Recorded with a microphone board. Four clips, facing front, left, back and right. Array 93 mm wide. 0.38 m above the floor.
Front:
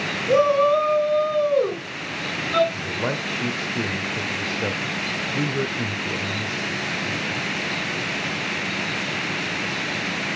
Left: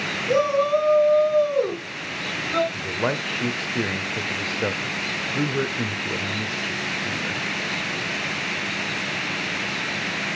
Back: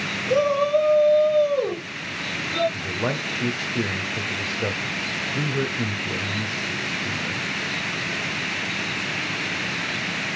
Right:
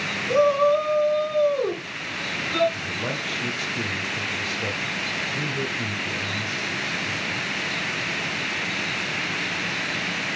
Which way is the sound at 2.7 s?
90° left.